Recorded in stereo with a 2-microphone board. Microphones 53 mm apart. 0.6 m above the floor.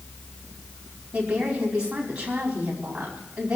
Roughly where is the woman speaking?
Right.